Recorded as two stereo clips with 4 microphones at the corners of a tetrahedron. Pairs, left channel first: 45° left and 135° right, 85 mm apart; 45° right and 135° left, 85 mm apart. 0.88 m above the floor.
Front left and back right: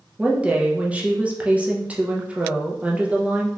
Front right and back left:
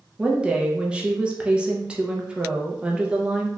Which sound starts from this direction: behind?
A woman speaking, at 0.2 s.